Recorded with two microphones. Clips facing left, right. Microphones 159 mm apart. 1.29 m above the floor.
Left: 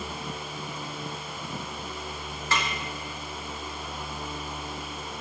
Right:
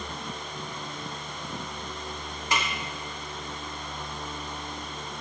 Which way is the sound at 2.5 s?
15° right (ahead or behind).